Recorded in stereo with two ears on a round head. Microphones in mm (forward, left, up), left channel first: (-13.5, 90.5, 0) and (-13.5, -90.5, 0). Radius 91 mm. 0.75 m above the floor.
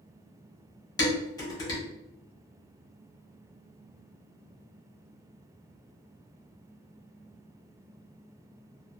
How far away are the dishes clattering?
About 1.1 m.